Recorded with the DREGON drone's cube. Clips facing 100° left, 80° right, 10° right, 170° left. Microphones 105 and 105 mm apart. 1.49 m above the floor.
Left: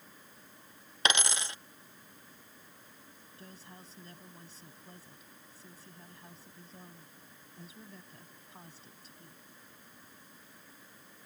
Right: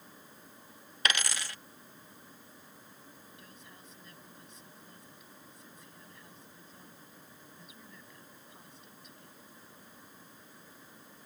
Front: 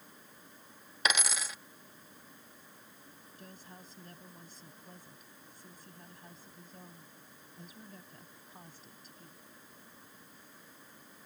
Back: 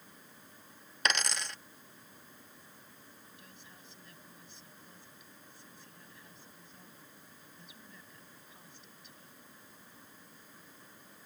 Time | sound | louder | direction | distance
1.1 | a dropped coin | left 2 dB, even | 70° left | ?
3.4 | a woman speaking | left 2 dB, front 4 dB | 45° left | ?